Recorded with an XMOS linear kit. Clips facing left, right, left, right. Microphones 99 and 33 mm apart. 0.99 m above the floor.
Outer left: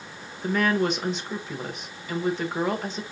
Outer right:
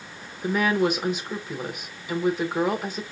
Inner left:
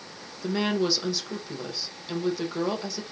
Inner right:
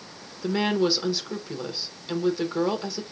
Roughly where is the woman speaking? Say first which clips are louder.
Outer right 1 dB, inner right 2 dB; centre.